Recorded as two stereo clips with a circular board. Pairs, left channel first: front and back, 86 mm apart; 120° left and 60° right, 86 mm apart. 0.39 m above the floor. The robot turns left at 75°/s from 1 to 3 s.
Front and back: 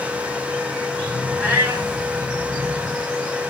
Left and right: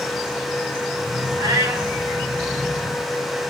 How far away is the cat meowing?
About 1.2 m.